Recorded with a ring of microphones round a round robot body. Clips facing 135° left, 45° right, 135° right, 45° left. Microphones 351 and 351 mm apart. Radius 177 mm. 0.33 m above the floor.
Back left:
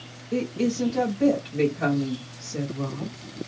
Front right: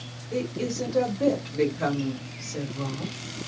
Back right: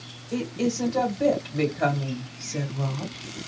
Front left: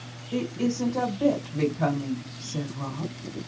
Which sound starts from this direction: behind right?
A woman speaking, at 0.3 s.